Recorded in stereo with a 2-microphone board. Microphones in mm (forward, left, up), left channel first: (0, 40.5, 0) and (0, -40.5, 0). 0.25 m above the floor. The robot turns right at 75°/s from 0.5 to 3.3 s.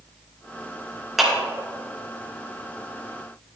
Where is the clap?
5° right (ahead or behind), 2.5 m; by 1.3 s 5° left (ahead or behind), 2.5 m.